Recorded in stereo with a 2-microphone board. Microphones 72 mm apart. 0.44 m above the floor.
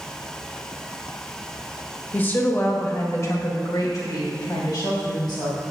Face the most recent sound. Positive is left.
turn(degrees=70)  # may be behind; listen again after turning